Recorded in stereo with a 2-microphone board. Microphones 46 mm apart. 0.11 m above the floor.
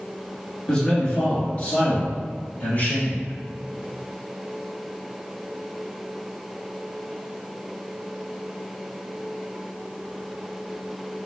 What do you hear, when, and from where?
0.7 s a man speaking: 20° left (ahead or behind), 1.3 m; by 3.3 s 50° left (ahead or behind), 2 m